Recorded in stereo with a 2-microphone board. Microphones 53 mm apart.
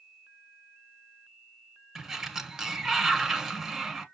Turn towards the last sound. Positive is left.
turn(degrees=-5)  # may be behind; listen again after turning